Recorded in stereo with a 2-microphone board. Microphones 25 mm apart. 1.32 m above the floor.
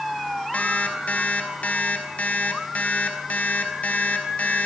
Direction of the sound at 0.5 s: 80° left.